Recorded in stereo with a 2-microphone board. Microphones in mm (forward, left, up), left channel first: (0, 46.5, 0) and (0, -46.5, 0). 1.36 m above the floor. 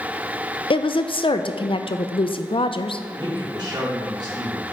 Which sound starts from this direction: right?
A man speaking, at 3.1 s.